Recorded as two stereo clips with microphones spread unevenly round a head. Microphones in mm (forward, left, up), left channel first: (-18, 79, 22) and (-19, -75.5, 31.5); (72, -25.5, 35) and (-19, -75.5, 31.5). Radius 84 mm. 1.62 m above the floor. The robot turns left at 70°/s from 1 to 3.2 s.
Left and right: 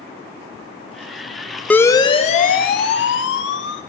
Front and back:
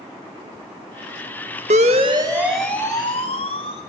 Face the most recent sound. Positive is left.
turn(degrees=80)